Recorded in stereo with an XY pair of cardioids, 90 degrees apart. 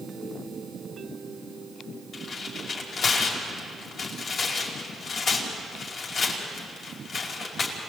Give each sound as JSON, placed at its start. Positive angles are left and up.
{"t": 2.1, "sound": "tearing paper", "azimuth_deg": 65, "distance_m": 5.0}